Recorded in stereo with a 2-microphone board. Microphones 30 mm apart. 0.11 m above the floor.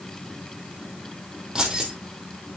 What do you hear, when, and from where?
1.6 s keys jangling: 25° right (ahead or behind), 3 m